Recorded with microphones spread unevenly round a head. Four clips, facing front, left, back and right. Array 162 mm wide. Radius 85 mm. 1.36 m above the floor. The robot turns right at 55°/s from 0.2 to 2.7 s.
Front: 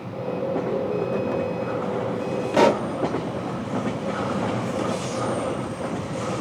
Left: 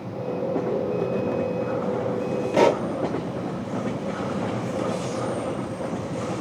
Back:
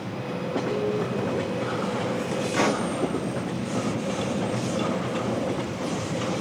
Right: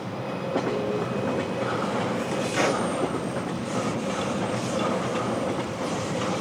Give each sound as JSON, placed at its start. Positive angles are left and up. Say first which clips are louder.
{"t": 2.5, "sound": "a pop", "louder": "left 7 dB, front 7 dB", "azimuth_deg": 45, "distance_m": 0.8}